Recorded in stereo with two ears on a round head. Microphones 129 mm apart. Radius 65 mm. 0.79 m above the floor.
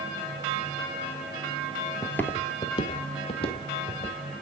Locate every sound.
2.0 s footsteps: 5° left (ahead or behind), 1.0 m; by 4.2 s 45° left (ahead or behind), 2.5 m